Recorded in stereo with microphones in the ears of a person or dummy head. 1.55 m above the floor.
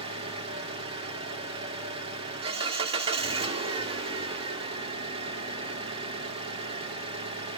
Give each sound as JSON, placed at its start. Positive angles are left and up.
{"t": 0.0, "sound": "an engine running", "side_deg": -25, "distance_m": 0.8}